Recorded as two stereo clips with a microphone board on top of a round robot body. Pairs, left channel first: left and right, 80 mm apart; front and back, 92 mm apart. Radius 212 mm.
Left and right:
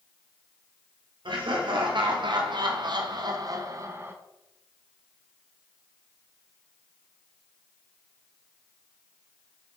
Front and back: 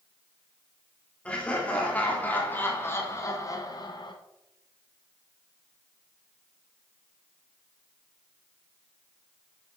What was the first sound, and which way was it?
Laughter, 75° right.